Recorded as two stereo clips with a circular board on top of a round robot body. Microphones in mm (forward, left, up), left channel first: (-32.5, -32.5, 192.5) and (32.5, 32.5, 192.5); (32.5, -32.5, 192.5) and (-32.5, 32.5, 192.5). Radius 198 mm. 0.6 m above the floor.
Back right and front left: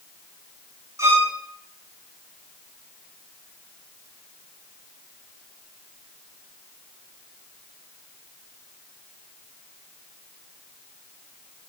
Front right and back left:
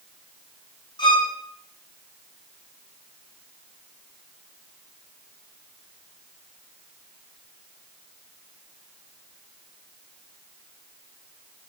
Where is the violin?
10° right, 4 m.